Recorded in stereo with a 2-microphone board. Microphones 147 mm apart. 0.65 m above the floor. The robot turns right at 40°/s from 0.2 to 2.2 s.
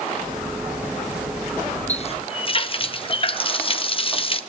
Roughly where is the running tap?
Left.